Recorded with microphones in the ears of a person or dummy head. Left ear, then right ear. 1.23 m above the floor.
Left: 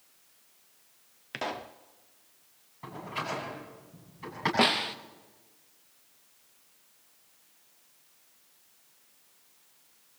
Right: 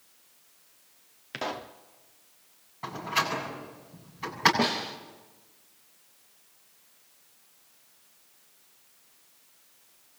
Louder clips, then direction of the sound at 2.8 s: Right 7 dB; 20° right (ahead or behind).